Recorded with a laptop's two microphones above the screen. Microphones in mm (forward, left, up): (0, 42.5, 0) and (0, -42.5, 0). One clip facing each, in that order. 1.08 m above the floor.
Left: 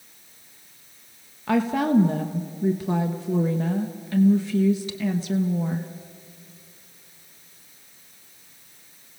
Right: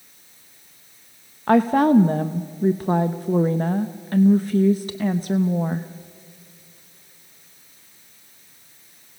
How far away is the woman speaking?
About 0.8 m.